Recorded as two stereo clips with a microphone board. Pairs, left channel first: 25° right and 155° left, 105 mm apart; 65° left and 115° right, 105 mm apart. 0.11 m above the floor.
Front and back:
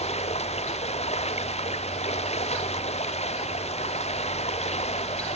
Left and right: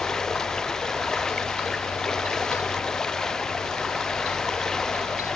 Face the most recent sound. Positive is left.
turn(degrees=-15)